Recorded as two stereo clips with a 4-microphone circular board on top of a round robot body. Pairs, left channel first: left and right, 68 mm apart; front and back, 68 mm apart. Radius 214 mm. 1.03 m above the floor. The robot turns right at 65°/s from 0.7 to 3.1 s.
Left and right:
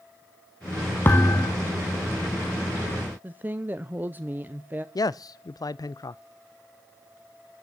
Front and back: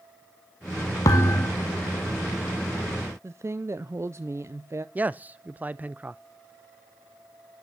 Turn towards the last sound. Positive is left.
turn(degrees=115)